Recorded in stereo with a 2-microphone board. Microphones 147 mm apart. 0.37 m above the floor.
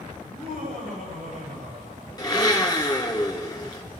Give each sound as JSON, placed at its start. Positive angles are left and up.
{"t": 0.2, "sound": "laughter", "side_deg": -80, "distance_m": 8.5}
{"t": 2.2, "sound": "a blender", "side_deg": 25, "distance_m": 3.0}